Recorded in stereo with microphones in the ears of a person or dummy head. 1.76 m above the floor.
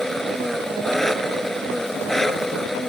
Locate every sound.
0.0 s an engine running: centre (ahead or behind)